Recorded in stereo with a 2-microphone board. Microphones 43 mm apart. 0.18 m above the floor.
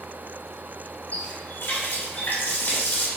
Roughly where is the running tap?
Left.